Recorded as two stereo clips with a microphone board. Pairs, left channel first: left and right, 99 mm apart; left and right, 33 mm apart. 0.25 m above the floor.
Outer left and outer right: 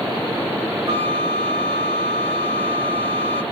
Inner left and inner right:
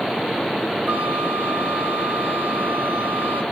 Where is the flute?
65° right (ahead or behind), 1.9 m.